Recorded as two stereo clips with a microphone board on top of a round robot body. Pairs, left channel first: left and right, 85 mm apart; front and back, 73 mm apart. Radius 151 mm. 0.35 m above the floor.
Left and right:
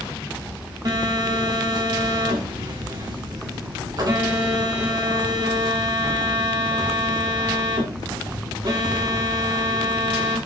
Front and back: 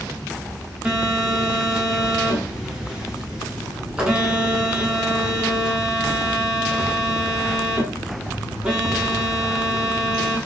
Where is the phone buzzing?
105° right, 1.6 m.